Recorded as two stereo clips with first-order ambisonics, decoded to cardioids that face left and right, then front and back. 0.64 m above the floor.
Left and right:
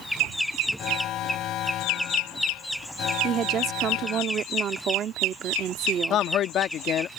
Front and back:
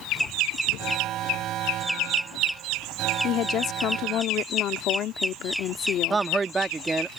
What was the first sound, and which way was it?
An alarm, 135° left.